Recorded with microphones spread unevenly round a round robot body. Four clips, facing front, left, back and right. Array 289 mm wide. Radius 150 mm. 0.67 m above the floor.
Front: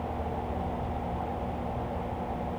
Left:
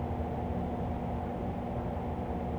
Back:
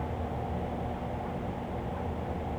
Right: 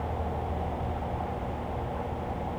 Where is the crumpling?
No crumpling in this recording.